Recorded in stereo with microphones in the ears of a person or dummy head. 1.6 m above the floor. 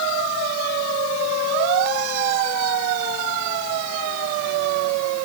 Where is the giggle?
No giggle in this recording.